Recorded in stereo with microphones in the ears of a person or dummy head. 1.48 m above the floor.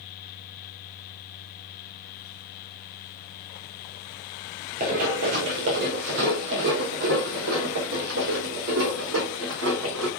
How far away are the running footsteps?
About 1.7 m.